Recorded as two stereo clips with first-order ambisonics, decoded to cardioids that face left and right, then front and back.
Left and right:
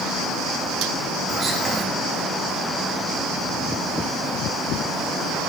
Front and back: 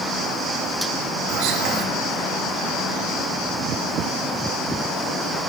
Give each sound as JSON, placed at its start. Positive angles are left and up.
{"t": 1.3, "sound": "whispering", "azimuth_deg": -165, "distance_m": 3.0}